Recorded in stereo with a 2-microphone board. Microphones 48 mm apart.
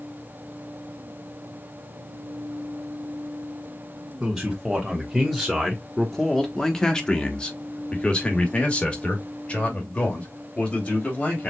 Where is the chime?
No chime in this recording.